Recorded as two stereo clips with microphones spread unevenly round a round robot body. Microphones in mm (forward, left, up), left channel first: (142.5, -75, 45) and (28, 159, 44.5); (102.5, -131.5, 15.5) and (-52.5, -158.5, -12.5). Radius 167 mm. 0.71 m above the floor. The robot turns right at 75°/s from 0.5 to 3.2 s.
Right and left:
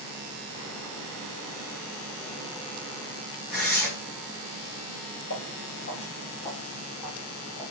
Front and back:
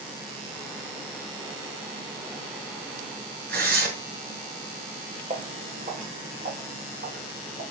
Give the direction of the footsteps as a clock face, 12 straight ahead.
4 o'clock.